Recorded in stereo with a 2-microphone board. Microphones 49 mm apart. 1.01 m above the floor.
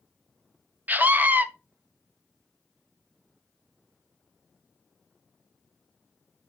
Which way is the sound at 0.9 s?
35° right (ahead or behind).